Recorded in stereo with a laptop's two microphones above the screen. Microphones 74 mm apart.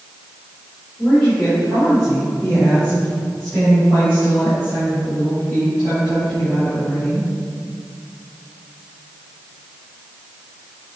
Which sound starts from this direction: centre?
A woman speaking, at 1.0 s.